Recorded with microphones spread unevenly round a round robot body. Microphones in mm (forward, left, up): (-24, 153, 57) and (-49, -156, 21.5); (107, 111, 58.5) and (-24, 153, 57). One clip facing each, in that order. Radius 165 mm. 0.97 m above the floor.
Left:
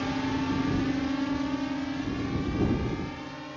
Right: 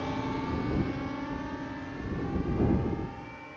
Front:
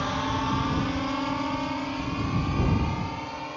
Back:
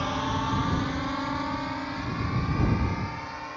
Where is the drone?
80° left; by 3.6 s 50° left.